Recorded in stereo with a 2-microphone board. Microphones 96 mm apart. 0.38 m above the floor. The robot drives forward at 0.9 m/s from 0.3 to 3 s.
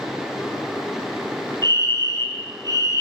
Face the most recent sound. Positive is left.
turn(degrees=-35)  # may be behind; listen again after turning